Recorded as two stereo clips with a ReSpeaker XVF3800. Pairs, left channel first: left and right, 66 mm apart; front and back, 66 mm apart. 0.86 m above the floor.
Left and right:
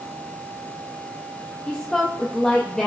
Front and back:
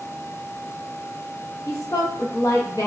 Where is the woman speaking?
10° left, 0.6 m.